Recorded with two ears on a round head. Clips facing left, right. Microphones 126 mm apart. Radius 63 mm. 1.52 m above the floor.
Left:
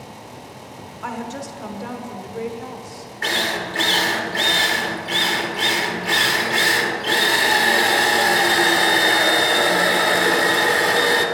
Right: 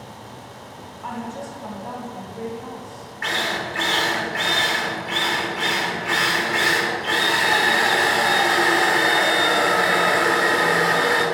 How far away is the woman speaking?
About 1.1 m.